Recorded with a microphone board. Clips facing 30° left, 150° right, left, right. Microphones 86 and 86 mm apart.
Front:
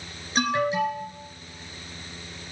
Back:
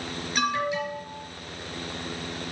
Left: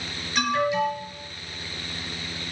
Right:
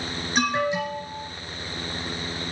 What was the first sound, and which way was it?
An alarm, 25° right.